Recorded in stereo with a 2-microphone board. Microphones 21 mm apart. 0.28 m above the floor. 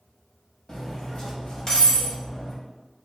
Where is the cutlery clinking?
30° left (ahead or behind), 0.7 m.